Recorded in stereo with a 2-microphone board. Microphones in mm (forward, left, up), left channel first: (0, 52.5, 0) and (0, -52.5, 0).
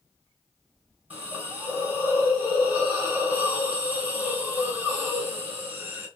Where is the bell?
No bell in this recording.